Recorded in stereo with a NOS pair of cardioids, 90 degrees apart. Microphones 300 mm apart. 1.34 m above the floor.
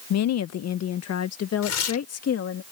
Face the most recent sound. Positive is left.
turn(degrees=60)